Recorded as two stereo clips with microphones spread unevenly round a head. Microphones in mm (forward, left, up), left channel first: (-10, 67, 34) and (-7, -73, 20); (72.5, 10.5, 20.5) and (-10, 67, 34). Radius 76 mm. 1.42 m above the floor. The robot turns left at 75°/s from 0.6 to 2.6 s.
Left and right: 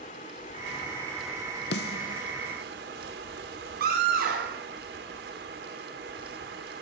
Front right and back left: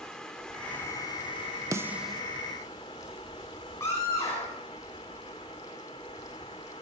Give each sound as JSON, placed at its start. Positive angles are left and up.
{"t": 0.0, "sound": "running water", "azimuth_deg": 50, "distance_m": 2.0}
{"t": 1.7, "sound": "a snare drum", "azimuth_deg": 90, "distance_m": 0.6}
{"t": 3.8, "sound": "a scream", "azimuth_deg": -110, "distance_m": 3.5}